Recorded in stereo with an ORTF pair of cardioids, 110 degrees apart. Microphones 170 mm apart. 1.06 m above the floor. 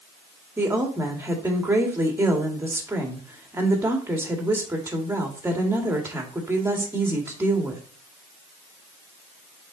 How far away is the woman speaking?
About 2 m.